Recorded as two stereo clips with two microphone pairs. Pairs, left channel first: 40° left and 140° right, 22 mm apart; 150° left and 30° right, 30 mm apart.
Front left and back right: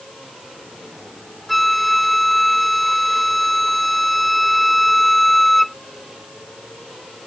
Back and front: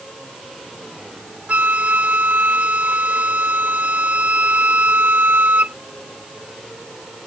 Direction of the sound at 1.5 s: 45° right.